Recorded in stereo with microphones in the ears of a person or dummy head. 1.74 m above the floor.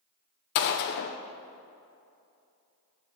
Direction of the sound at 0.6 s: 55° left (ahead or behind).